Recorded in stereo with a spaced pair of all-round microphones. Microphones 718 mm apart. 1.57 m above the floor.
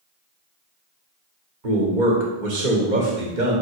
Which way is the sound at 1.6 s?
80° right.